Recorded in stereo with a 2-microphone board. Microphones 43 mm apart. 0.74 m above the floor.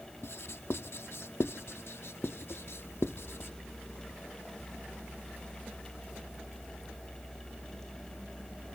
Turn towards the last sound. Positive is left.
turn(degrees=70)  # may be behind; listen again after turning